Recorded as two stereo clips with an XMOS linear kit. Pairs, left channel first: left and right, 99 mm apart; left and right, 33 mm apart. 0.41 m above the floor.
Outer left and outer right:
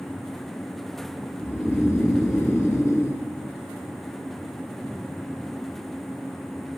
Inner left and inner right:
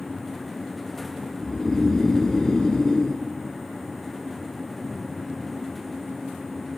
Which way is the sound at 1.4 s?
25° left (ahead or behind).